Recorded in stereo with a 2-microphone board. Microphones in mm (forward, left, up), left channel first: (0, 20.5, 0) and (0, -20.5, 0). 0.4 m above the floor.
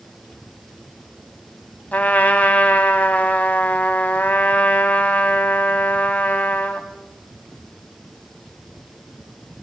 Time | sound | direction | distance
1.9 | a trumpet | 40° left (ahead or behind) | 1.5 m